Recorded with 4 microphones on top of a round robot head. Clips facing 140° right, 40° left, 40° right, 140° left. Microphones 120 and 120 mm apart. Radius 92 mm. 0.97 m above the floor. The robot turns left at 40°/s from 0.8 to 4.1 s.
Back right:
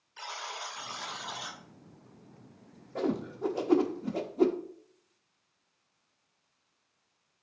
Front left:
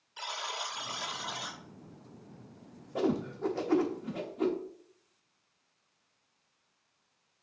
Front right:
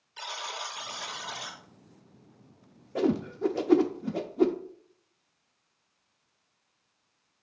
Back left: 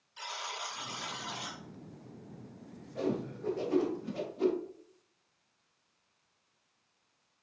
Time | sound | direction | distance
0.2 | a buzzer | 25° right | 1.3 m
3.0 | a whoosh | 40° right | 0.6 m